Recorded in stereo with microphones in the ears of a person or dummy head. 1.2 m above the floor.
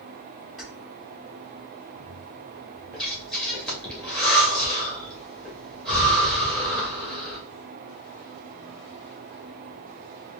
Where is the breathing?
5° left (ahead or behind), 2.0 m.